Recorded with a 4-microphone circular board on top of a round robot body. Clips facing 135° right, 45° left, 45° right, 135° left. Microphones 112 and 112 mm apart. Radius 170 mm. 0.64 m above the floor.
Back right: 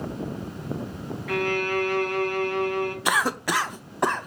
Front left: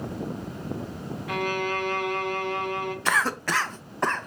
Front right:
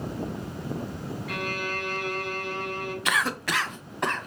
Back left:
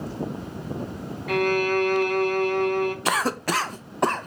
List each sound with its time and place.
1.3 s a violin: 115° left, 1.1 m
3.0 s a cough: 155° left, 0.6 m